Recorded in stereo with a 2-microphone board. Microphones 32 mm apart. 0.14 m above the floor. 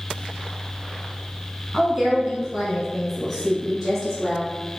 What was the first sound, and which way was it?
A woman speaking, 20° right (ahead or behind).